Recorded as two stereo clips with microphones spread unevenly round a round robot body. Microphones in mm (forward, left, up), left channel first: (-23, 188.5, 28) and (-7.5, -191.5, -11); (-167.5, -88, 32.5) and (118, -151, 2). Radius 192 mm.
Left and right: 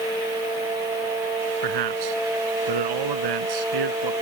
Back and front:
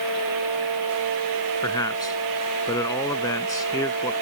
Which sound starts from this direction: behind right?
A man speaking, at 1.6 s.